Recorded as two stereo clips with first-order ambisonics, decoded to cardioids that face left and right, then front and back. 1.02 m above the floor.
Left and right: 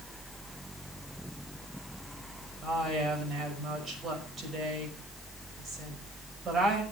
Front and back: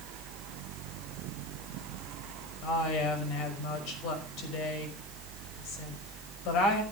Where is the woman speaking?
25° right, 5.5 m.